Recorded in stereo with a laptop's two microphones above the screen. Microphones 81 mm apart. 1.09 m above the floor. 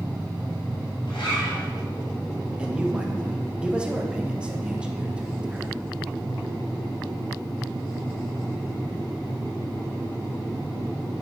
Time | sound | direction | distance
1.1 | a zipper | 80° left | 3 m
2.6 | a man speaking | 10° right (ahead or behind) | 1.4 m